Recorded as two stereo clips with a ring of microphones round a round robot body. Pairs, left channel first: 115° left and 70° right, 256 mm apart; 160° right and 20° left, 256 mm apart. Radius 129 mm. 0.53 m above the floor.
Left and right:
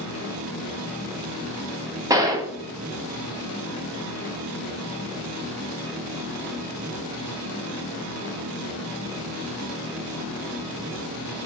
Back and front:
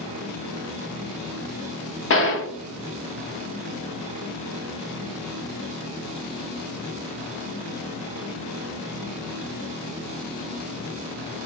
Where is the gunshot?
140° right, 0.7 m.